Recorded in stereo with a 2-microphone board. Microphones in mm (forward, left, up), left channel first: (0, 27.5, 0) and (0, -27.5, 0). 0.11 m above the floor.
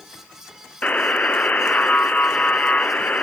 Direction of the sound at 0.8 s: 25° left (ahead or behind).